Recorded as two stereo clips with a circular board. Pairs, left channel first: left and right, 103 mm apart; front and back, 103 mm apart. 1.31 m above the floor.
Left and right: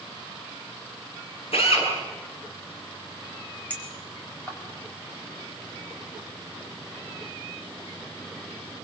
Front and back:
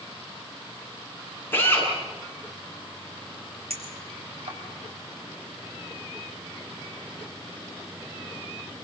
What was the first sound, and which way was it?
A drill, 70° left.